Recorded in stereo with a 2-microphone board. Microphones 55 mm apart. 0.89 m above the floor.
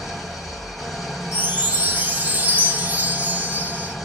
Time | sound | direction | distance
0.0 | an engine running | centre (ahead or behind) | 1.3 m
1.3 | a chime | 30° right (ahead or behind) | 0.6 m